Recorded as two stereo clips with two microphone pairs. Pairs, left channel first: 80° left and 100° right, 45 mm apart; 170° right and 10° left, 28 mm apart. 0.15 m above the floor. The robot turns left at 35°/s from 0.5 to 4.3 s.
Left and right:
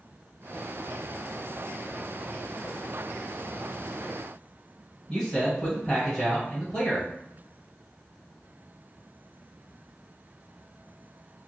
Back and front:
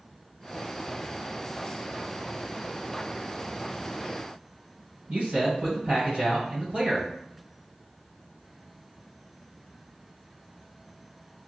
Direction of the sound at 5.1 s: 20° left.